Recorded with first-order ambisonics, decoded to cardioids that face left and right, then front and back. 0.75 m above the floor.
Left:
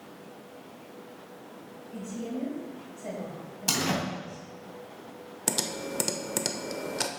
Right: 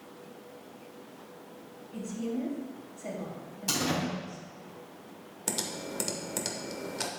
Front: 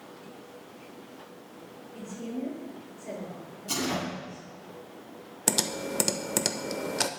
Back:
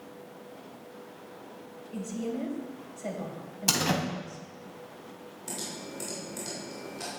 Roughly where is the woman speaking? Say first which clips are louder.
Right 1 dB, back 4 dB; behind.